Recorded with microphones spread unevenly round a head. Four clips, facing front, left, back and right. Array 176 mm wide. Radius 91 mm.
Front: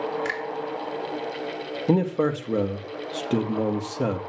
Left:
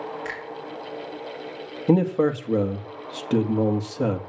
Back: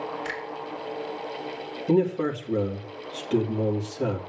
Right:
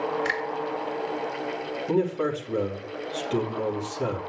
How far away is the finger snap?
About 3 m.